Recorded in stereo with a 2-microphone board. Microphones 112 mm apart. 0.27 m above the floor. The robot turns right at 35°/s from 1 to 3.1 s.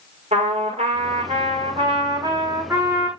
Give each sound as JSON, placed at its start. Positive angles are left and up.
{"t": 0.3, "sound": "a trumpet", "azimuth_deg": -85, "distance_m": 9.0}